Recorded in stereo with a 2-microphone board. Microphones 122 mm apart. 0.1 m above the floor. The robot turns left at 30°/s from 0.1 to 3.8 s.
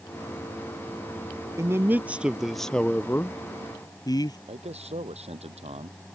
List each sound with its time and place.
1.6 s a man speaking: 150° right; by 4.4 s 140° left
4.5 s a man speaking: 60° right (ahead or behind)